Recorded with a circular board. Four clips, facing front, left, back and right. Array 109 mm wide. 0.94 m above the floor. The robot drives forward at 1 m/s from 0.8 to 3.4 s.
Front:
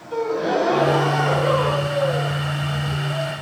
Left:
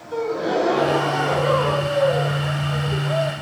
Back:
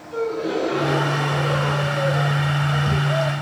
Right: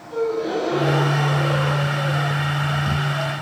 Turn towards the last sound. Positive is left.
turn(degrees=130)